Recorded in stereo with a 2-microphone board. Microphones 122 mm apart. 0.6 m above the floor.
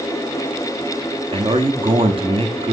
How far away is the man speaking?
About 1.0 m.